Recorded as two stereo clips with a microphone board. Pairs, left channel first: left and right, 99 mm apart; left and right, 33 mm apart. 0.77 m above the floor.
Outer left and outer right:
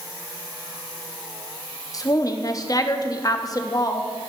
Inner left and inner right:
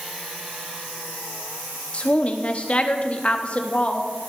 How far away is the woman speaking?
About 0.8 m.